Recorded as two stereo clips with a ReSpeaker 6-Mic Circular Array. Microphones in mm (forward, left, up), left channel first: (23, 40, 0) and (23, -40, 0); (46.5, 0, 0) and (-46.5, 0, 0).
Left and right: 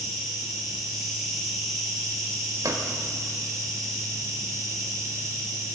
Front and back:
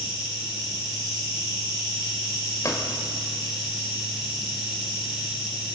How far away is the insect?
About 8.5 m.